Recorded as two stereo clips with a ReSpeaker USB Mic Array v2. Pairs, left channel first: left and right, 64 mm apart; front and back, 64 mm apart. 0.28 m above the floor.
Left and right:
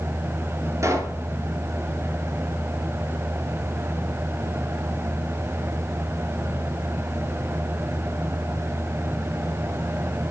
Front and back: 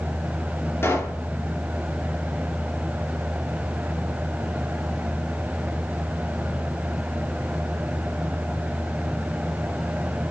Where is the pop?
55° right, 3 m.